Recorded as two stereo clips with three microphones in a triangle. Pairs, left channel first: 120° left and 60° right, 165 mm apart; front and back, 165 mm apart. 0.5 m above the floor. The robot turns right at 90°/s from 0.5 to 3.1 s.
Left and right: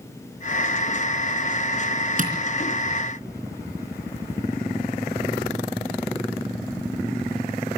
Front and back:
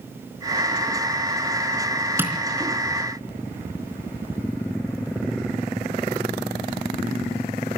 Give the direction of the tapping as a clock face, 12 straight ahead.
3 o'clock.